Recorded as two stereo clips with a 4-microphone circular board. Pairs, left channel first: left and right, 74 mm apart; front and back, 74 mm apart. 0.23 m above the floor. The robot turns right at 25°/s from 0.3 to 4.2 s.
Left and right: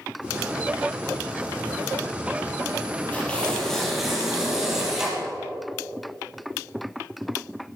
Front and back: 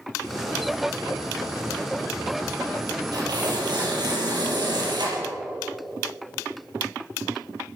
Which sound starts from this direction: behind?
Tearing paper, at 3.1 s.